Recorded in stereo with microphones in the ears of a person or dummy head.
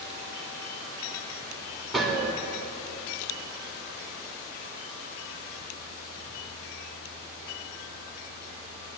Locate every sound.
1.9 s a gunshot: centre (ahead or behind), 4 m